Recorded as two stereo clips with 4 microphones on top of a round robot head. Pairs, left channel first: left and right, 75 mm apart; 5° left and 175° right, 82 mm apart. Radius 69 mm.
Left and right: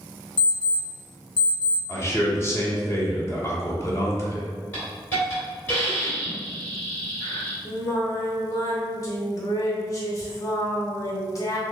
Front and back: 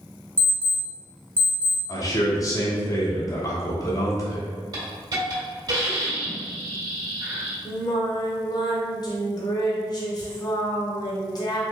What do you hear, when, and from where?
0.4 s an alarm clock: 75° left, 1.4 m
1.9 s a man speaking: 45° left, 1.2 m
4.7 s a hiss: 160° left, 1.9 m
7.7 s singing: 45° left, 0.9 m